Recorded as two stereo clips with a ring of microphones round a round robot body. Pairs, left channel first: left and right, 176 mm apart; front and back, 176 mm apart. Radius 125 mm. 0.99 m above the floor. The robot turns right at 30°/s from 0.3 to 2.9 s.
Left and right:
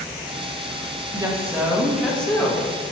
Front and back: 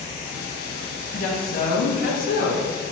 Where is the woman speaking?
25° right, 0.9 m; by 2.7 s 20° left, 0.9 m.